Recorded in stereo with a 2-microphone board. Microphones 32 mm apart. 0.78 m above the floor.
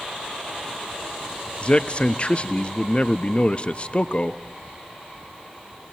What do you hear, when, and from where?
1.6 s a man speaking: 40° left (ahead or behind), 0.8 m